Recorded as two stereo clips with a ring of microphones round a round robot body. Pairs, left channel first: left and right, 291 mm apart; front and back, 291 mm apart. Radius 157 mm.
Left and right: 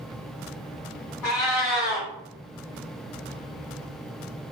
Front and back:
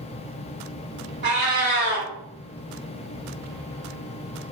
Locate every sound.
1.2 s a cat meowing: 125° left, 1.2 m